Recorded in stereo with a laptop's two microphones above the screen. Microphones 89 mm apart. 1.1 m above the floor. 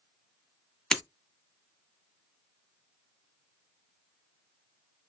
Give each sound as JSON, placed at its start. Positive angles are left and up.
{"t": 0.9, "sound": "breaking glass", "side_deg": 5, "distance_m": 1.3}